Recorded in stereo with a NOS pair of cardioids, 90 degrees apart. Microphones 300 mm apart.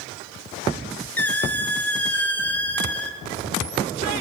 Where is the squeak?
5° left, 1.4 m.